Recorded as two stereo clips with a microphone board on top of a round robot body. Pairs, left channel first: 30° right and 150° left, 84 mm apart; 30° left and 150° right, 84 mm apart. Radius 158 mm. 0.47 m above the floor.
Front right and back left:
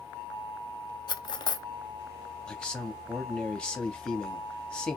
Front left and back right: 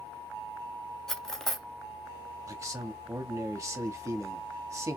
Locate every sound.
1.1 s cutlery clinking: 55° right, 0.6 m
2.5 s a man speaking: 110° right, 1.0 m